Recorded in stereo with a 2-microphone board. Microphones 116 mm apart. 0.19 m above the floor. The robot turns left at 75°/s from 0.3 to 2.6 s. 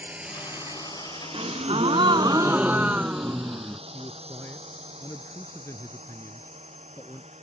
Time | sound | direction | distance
0.0 | a drone | 15° right (ahead or behind) | ?
1.3 | a gasp | 65° right | ?
3.9 | a man speaking | 25° left (ahead or behind) | ?